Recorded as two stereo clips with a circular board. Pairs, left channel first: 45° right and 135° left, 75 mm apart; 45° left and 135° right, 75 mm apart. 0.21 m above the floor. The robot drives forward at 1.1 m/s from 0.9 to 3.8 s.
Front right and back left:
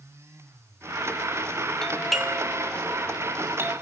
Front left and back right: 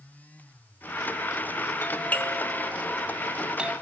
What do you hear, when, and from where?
1.8 s a doorbell: 30° left, 2.0 m; by 3.7 s 160° left, 2 m